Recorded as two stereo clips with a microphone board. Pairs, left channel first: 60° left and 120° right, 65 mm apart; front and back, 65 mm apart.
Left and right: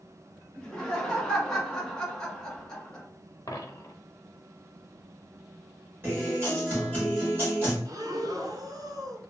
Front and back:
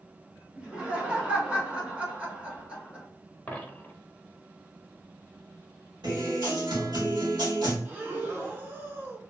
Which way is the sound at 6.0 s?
Straight behind.